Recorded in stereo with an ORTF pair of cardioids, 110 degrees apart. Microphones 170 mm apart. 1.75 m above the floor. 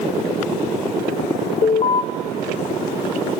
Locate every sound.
1.6 s an alarm: 40° left, 0.7 m